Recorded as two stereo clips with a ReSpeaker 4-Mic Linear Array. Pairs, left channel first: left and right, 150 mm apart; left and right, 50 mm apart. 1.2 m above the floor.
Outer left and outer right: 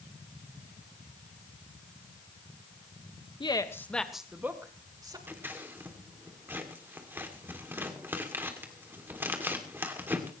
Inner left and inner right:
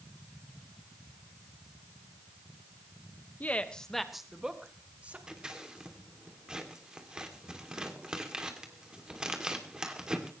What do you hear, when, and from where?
3.4 s a woman speaking: 35° left (ahead or behind), 1.4 m; by 5.2 s 25° right (ahead or behind), 3 m
5.3 s scissors: 15° right (ahead or behind), 2.5 m